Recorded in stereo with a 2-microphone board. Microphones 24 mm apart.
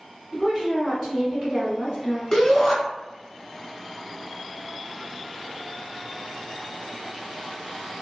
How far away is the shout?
About 1.1 m.